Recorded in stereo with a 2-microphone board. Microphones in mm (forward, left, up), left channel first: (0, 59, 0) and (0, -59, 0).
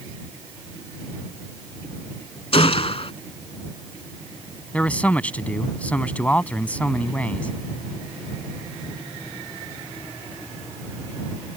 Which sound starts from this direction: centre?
A man speaking, at 4.7 s.